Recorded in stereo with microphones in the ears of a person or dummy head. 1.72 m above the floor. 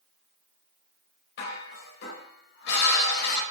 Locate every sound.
1.4 s dishes clattering: 65° left (ahead or behind), 5.5 m